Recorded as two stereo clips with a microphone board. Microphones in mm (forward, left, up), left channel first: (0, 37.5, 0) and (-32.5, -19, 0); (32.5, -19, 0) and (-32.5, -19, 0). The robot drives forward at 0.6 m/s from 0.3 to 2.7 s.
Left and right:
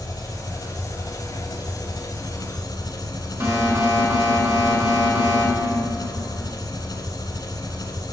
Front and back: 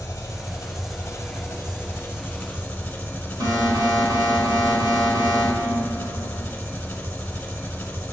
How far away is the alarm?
About 4 m.